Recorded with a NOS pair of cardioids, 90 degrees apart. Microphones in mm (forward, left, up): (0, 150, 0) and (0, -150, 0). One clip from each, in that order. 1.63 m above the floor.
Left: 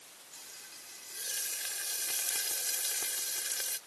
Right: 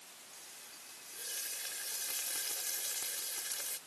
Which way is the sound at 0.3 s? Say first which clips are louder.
Left 5 dB; 30° left.